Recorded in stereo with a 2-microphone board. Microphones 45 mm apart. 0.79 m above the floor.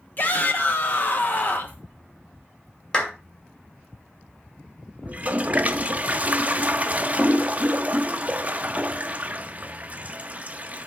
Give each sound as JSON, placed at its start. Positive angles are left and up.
{"t": 0.2, "sound": "a shout", "side_deg": 45, "distance_m": 0.8}
{"t": 2.9, "sound": "a clap", "side_deg": 20, "distance_m": 2.5}
{"t": 5.1, "sound": "a toilet flushing", "side_deg": -35, "distance_m": 0.5}